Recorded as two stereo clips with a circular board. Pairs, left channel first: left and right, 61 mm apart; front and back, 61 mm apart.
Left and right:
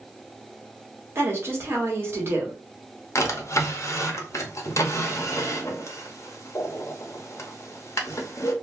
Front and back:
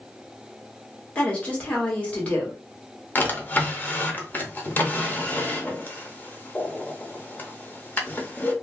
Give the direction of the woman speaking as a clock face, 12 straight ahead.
2 o'clock.